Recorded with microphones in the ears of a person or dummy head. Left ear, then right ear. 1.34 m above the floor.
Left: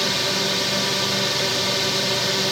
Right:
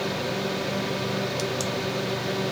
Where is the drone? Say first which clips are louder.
Left 7 dB; 40° left (ahead or behind).